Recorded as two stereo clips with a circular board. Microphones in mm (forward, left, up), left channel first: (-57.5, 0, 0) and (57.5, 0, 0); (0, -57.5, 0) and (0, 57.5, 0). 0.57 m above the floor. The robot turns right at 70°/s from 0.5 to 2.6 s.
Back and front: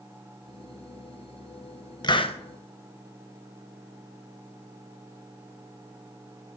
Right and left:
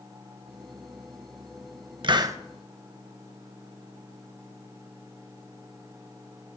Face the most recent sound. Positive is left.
turn(degrees=170)